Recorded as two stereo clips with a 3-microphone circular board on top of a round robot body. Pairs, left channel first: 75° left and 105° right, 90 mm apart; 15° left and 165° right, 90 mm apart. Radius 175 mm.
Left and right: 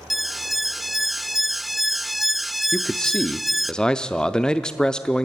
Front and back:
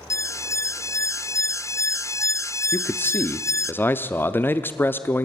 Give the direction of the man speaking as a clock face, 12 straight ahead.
12 o'clock.